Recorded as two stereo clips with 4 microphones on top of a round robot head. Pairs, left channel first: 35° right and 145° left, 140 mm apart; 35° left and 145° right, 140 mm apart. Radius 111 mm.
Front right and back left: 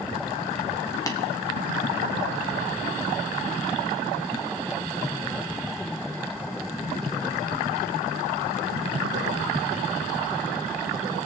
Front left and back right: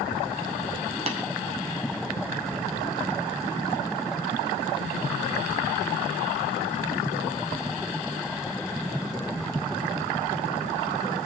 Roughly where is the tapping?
Right.